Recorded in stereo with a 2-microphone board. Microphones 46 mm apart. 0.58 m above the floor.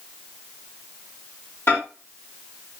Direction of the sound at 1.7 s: 60° left (ahead or behind).